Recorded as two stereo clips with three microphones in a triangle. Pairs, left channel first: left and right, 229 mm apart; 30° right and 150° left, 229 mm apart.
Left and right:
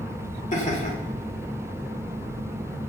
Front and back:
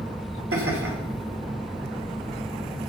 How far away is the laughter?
About 3 m.